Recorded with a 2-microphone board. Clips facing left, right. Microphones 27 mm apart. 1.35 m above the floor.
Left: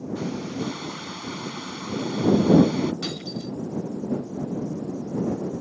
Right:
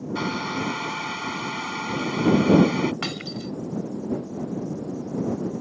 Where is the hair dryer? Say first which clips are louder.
Right 4 dB; 80° right.